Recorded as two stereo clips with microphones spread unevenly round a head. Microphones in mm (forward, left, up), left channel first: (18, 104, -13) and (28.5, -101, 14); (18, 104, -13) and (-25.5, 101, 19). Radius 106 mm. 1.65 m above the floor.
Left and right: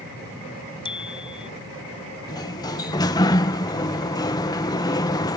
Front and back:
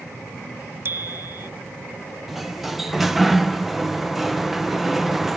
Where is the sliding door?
165° left.